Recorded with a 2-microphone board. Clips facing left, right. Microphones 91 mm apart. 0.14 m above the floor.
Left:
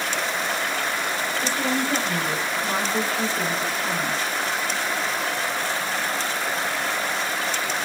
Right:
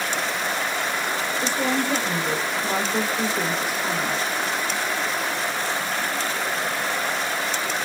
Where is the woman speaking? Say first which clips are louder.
Right 1 dB; 15° right (ahead or behind), 7.5 m.